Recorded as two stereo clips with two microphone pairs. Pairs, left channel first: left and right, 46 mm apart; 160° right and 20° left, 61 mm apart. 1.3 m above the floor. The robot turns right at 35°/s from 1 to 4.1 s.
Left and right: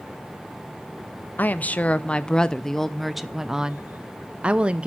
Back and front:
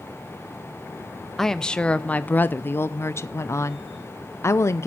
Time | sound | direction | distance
1.4 | a woman speaking | 120° left | 0.5 m